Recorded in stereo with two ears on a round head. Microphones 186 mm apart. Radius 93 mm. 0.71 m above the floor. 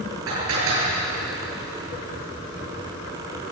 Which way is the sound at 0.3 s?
80° right.